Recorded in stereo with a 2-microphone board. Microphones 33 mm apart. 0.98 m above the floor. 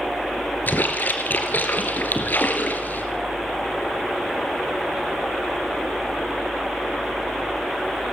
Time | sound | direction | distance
0.7 | a splash | 55° left (ahead or behind) | 2.5 m